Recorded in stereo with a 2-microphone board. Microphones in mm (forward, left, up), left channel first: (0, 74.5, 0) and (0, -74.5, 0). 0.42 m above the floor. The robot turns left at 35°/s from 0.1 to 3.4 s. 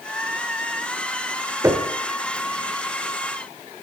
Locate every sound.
1.6 s knocking: 20° right (ahead or behind), 1.3 m; by 1.9 s 15° right (ahead or behind), 1.3 m